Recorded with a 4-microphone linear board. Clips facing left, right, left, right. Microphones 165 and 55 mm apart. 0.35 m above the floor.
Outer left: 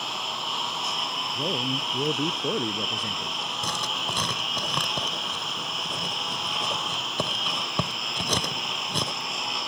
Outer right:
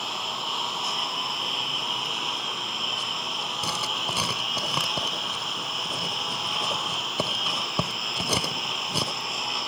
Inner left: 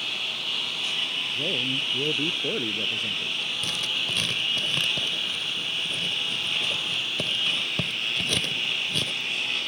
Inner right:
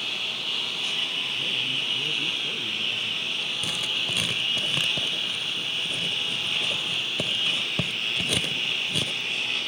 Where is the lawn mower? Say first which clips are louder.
Even, even; centre (ahead or behind).